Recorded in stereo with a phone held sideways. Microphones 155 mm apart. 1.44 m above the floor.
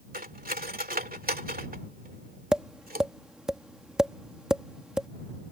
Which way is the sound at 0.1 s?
70° right (ahead or behind).